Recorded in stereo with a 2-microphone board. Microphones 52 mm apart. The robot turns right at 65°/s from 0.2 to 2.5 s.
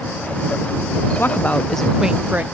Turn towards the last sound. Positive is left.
turn(degrees=-140)